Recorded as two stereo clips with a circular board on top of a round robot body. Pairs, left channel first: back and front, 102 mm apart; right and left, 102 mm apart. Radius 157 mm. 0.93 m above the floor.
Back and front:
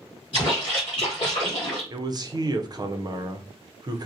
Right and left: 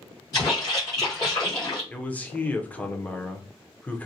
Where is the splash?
145° right, 0.8 m.